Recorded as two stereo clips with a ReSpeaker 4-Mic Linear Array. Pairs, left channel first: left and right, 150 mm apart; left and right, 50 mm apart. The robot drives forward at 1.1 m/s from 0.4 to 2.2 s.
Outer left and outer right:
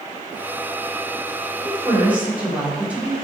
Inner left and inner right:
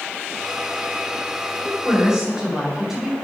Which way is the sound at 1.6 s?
10° right (ahead or behind).